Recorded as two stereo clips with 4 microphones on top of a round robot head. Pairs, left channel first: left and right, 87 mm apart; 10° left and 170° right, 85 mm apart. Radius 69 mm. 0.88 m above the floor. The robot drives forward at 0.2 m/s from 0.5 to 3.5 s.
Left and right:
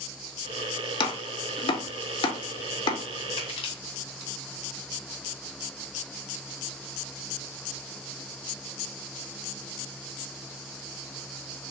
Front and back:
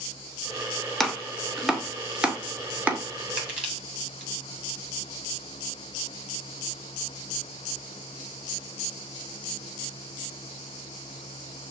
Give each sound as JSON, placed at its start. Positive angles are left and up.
{"t": 1.0, "sound": "chopping", "azimuth_deg": 95, "distance_m": 1.0}
{"t": 3.4, "sound": "crushing", "azimuth_deg": 110, "distance_m": 2.0}